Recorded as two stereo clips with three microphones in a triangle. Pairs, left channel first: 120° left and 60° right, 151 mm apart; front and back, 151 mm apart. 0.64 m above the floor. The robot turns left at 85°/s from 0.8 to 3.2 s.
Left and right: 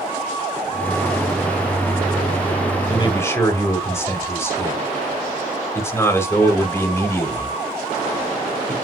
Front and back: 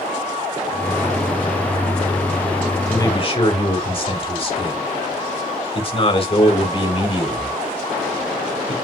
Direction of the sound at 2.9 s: 75° left.